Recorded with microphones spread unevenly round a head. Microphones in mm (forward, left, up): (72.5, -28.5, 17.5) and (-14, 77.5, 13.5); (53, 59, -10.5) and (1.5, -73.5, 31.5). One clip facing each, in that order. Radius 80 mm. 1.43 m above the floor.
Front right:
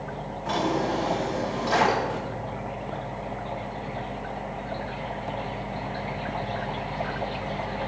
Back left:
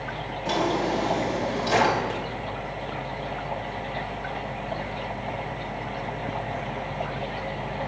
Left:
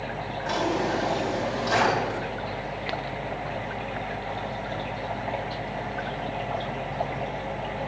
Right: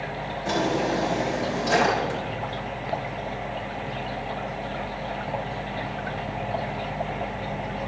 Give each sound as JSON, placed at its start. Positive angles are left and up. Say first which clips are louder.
{"t": 0.5, "sound": "a drawer", "louder": "back left 1 dB, right 2 dB", "azimuth_deg": -170, "distance_m": 4.0}